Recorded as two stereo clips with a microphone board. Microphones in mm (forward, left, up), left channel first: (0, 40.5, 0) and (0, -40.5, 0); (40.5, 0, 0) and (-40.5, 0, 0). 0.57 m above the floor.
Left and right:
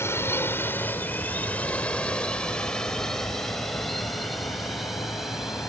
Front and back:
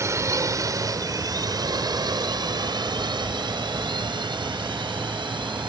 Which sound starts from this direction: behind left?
A drone, at 0.0 s.